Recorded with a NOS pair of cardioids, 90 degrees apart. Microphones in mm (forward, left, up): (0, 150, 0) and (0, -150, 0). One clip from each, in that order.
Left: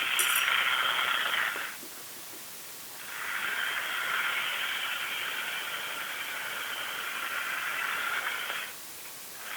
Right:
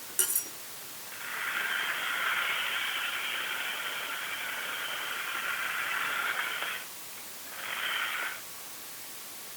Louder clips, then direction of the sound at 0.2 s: Left 6 dB; 25° right.